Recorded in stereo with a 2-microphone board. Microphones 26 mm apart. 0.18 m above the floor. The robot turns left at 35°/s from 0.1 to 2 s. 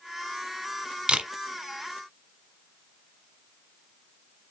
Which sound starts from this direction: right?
A camera shutter, at 1.1 s.